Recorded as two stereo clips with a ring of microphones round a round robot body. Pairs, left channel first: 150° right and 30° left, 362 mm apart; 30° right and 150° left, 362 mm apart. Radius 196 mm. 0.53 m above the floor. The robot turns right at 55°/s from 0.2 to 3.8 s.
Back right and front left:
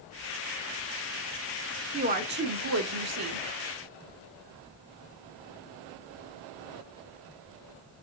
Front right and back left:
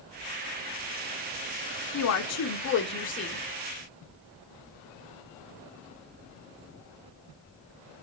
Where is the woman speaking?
35° right, 0.8 m; by 3.4 s 45° left, 0.8 m.